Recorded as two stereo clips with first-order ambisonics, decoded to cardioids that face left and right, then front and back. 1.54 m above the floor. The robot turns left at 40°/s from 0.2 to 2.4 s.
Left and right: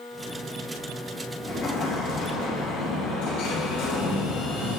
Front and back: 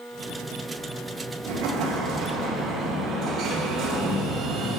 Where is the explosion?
155° left, 2 m; by 4.8 s 115° left, 2 m.